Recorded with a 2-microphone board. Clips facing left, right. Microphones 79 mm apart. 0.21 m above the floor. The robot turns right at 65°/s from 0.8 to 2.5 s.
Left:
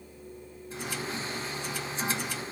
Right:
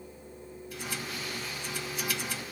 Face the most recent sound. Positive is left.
No sound to turn to.